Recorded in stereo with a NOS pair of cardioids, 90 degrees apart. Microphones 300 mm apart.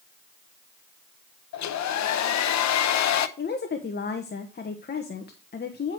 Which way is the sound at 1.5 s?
65° left.